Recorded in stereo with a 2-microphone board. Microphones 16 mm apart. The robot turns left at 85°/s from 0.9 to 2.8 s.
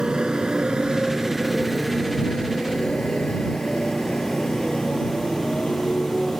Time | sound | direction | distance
0.0 | a motorcycle | 65° right (ahead or behind) | ?